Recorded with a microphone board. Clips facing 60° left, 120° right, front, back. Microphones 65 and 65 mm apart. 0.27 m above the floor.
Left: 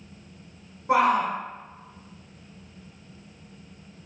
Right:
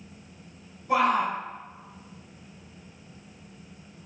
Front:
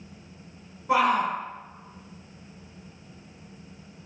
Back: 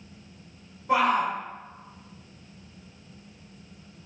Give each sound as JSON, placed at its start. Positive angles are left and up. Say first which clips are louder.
{"t": 0.9, "sound": "a shout", "louder": "left 2 dB, front 1 dB", "azimuth_deg": 75, "distance_m": 4.0}